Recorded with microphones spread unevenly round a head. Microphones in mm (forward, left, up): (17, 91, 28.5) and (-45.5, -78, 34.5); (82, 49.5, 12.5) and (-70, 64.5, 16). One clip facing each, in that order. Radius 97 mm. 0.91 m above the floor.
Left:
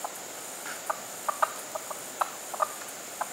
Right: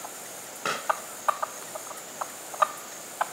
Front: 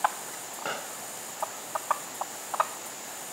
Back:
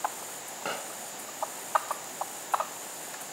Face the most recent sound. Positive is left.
turn(degrees=-100)